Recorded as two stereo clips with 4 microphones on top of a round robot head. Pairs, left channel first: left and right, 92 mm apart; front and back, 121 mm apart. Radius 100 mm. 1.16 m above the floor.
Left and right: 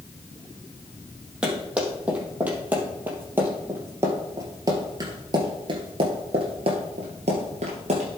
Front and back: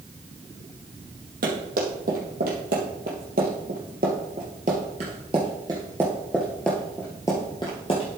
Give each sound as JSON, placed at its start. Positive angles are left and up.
{"t": 1.4, "sound": "running footsteps", "azimuth_deg": -170, "distance_m": 3.0}